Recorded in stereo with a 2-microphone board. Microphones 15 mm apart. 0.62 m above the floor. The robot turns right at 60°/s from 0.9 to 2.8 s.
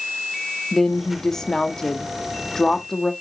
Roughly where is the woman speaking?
Ahead left.